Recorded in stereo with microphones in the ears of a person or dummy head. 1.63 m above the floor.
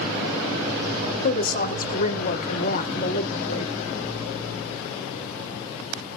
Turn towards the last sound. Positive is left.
turn(degrees=40)  # may be behind; listen again after turning